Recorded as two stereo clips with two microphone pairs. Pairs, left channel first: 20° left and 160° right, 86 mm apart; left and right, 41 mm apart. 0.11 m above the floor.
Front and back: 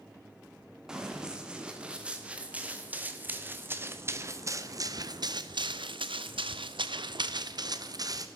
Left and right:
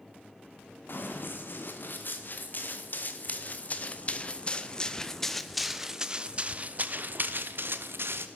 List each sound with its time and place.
0.9 s running footsteps: 120° left, 3 m; by 8.3 s 115° right, 1.7 m